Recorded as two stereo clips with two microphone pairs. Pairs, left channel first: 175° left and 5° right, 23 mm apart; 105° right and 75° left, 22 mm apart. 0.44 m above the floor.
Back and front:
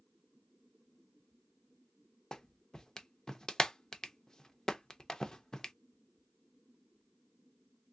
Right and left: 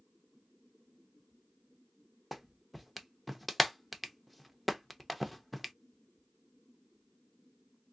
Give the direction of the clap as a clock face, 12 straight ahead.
6 o'clock.